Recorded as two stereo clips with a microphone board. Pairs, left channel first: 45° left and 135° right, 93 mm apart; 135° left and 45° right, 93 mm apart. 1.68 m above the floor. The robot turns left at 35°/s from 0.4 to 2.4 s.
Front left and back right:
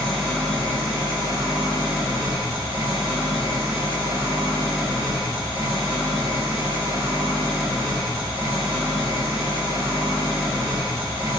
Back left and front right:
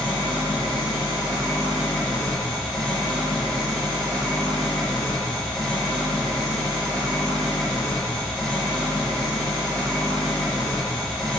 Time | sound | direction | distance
0.0 | an engine running | 125° left | 1.7 m